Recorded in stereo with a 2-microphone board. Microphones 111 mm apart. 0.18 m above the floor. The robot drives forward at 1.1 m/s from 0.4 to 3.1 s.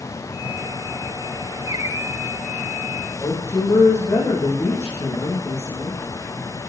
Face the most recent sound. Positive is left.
turn(degrees=25)  # may be behind; listen again after turning